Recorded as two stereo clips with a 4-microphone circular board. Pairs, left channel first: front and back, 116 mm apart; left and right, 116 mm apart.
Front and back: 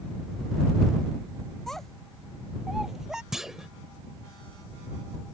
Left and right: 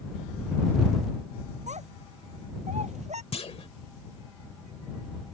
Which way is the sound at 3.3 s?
95° left.